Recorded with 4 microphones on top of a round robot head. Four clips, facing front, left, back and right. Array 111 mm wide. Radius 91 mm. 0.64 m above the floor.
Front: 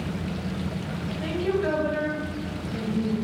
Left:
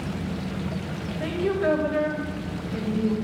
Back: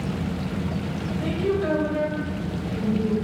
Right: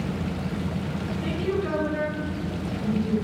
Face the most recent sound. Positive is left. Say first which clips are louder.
# left 4 dB, back 1 dB
turn(degrees=110)